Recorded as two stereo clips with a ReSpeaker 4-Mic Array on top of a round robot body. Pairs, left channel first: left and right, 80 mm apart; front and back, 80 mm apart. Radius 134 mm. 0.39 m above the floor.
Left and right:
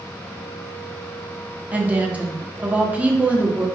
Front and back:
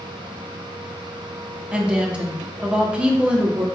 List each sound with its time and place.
1.7 s a woman speaking: 125° right, 1.1 m